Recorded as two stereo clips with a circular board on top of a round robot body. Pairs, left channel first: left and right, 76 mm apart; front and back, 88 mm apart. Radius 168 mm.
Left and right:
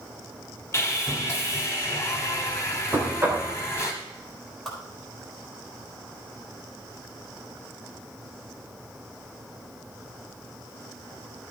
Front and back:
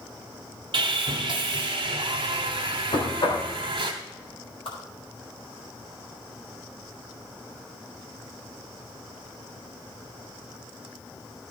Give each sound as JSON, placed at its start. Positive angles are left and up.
{"t": 0.7, "sound": "sawing", "azimuth_deg": 150, "distance_m": 0.9}
{"t": 2.9, "sound": "knocking", "azimuth_deg": -25, "distance_m": 3.0}
{"t": 4.7, "sound": "a whoosh", "azimuth_deg": 5, "distance_m": 3.5}